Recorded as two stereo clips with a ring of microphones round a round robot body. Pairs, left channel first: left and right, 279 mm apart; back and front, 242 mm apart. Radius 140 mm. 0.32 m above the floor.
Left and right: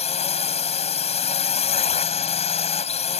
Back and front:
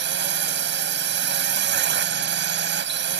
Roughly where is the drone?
Ahead left.